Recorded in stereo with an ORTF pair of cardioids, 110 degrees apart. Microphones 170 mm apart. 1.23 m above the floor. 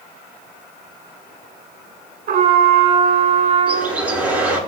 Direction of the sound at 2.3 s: 60° right.